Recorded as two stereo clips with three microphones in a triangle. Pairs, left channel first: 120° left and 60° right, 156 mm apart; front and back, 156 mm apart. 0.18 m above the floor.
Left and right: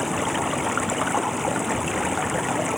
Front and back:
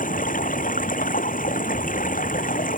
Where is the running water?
30° left.